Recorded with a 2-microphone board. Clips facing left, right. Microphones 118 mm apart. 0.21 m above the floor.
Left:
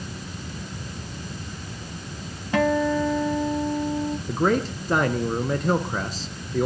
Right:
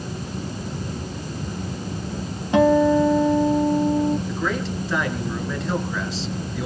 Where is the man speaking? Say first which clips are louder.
Left 3 dB; 45° left (ahead or behind), 3.5 m.